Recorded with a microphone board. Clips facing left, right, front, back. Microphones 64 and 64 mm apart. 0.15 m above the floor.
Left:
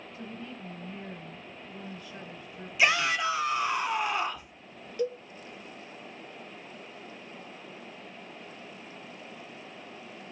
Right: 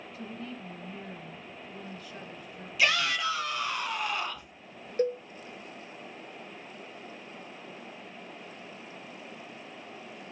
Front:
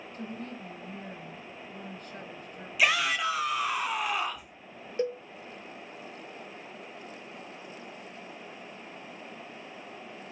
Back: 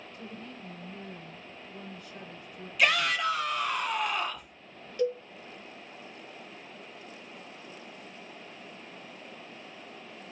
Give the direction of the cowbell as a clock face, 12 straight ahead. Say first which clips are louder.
Right 3 dB, back 2 dB; 2 o'clock.